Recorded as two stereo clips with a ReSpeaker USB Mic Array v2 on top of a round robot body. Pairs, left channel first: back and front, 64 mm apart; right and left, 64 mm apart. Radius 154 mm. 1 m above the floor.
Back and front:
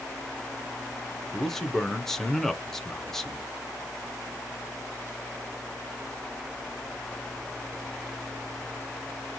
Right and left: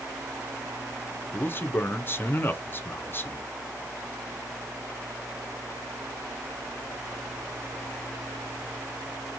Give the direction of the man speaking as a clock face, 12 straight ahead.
3 o'clock.